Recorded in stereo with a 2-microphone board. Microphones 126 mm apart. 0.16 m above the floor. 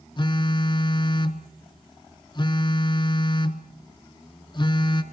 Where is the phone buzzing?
40° left (ahead or behind), 0.8 m.